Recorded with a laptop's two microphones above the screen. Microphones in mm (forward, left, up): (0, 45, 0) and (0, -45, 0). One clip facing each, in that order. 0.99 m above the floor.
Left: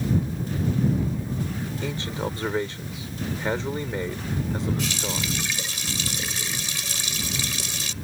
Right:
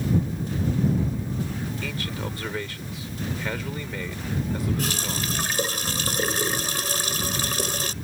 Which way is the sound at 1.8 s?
25° left (ahead or behind).